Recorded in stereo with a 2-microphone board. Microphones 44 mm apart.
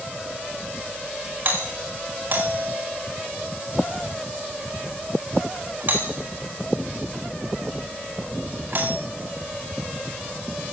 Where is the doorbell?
50° right (ahead or behind), 4.5 m.